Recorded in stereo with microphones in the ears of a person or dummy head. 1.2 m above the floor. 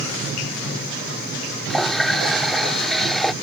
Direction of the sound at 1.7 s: 5° right (ahead or behind).